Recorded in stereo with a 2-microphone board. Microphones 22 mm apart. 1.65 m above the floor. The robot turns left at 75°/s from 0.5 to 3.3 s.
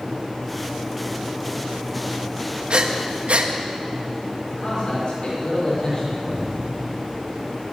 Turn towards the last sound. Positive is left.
turn(degrees=-50)  # may be behind; listen again after turning